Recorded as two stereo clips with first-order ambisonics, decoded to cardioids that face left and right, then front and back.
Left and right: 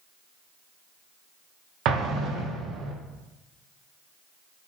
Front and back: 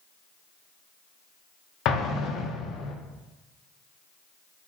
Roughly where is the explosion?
Ahead right.